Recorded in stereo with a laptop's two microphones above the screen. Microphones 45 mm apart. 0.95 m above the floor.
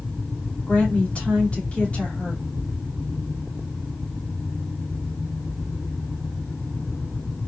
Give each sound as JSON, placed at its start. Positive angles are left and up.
{"t": 0.7, "sound": "a woman speaking", "side_deg": 30, "distance_m": 2.5}